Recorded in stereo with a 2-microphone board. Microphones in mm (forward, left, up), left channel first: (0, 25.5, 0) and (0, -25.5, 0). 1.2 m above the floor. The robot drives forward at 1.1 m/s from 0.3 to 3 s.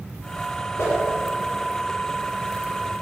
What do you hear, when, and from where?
0.8 s a whoosh: 60° left (ahead or behind), 4 m; by 1.0 s 65° left (ahead or behind), 4 m